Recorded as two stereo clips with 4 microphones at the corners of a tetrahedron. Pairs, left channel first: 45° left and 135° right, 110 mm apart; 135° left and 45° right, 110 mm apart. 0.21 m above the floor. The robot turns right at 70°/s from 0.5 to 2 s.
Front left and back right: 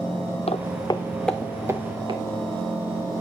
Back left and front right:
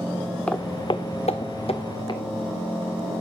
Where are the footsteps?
55° left, 0.6 m; by 2.2 s straight behind, 2 m.